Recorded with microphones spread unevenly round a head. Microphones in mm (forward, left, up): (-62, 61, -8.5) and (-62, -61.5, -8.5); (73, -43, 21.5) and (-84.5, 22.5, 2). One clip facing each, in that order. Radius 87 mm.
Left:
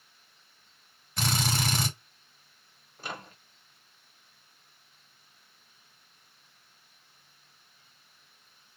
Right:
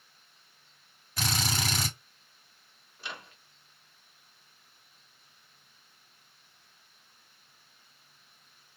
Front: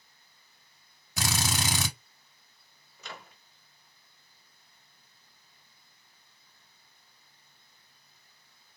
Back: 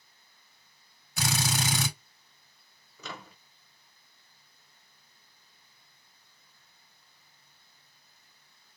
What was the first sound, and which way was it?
A drill, straight ahead.